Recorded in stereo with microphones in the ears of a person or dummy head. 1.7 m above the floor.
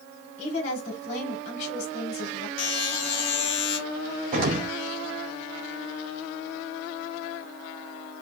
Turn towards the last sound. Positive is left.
turn(degrees=-45)  # may be behind; listen again after turning